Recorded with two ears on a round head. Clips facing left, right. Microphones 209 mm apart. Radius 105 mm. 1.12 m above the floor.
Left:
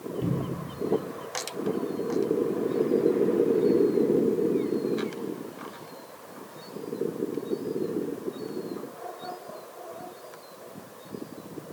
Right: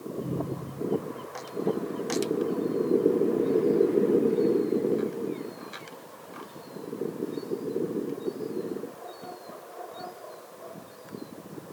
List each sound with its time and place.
0.2 s a cupboard door: 85° left, 2.5 m